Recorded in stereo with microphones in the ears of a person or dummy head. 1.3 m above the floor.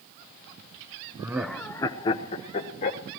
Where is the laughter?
15° right (ahead or behind), 0.5 m; by 3.0 s 35° left (ahead or behind), 1.4 m.